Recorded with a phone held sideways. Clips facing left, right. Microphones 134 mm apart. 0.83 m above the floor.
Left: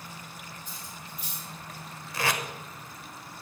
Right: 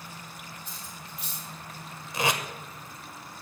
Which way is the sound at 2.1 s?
20° right (ahead or behind).